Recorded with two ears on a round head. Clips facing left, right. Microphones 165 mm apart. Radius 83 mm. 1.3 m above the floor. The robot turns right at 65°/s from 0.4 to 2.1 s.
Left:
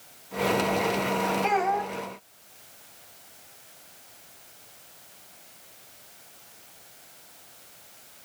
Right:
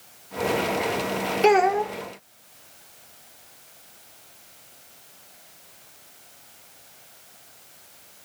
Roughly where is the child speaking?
Right.